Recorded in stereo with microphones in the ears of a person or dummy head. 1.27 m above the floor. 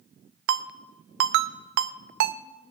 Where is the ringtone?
65° right (ahead or behind), 0.6 m.